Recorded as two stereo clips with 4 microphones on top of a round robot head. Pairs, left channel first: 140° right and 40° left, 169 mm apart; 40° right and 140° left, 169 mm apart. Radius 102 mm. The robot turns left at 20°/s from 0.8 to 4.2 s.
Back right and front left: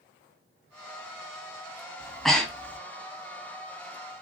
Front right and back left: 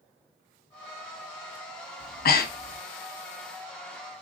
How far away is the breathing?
About 0.8 m.